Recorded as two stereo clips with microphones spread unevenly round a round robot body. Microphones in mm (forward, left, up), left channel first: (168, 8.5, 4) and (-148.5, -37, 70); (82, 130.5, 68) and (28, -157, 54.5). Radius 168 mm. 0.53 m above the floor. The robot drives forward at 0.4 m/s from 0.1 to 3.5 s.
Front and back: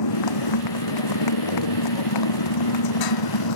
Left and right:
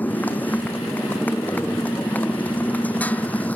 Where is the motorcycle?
5° right.